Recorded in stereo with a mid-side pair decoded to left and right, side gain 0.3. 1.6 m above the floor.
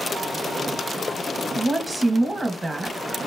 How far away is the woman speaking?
About 2 m.